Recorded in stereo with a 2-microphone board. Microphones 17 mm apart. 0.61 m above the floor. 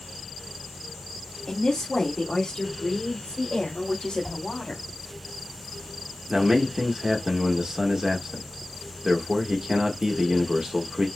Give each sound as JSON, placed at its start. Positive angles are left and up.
{"t": 1.5, "sound": "a woman speaking", "side_deg": 45, "distance_m": 1.2}
{"t": 4.2, "sound": "a whoosh", "side_deg": 60, "distance_m": 2.5}
{"t": 6.3, "sound": "a man speaking", "side_deg": -40, "distance_m": 1.2}